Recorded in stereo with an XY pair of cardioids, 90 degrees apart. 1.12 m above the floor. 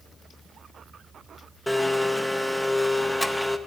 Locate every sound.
1.7 s a blender: 5° left, 0.6 m